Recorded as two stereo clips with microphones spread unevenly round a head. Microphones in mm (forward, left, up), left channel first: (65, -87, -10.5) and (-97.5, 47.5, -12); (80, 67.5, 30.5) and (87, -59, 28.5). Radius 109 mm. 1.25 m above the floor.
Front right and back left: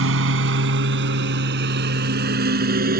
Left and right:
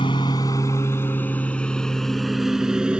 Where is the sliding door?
I don't hear a sliding door.